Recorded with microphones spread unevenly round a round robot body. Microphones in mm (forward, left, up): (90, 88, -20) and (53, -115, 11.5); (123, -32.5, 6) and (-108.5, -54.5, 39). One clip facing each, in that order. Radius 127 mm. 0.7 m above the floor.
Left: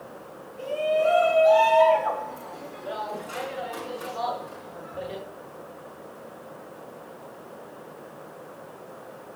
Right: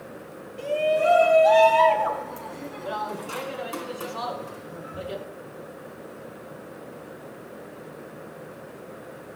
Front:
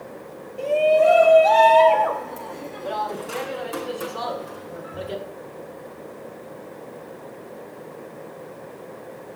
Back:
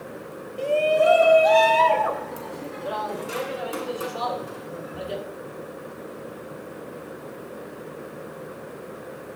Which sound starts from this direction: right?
A shout, at 0.6 s.